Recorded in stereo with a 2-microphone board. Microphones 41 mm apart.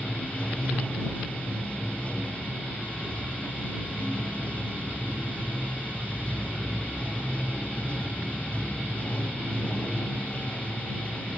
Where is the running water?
35° left (ahead or behind).